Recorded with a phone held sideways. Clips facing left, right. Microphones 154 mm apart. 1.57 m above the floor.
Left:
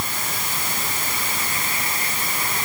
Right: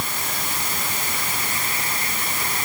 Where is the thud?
I don't hear a thud.